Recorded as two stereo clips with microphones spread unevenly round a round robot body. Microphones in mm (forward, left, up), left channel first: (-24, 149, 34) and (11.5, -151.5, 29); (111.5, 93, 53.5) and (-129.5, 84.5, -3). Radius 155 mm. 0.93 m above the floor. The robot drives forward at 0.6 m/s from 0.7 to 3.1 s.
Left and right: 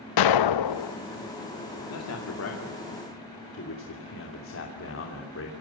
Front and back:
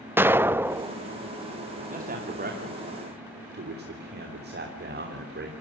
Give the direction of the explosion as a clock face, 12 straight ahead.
9 o'clock.